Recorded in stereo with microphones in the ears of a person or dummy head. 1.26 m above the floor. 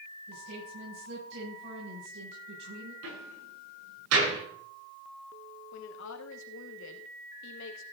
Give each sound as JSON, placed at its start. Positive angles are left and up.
{"t": 0.3, "sound": "a woman speaking", "side_deg": -70, "distance_m": 8.5}
{"t": 3.0, "sound": "a door slam", "side_deg": -80, "distance_m": 9.0}
{"t": 5.7, "sound": "a woman speaking", "side_deg": 65, "distance_m": 2.5}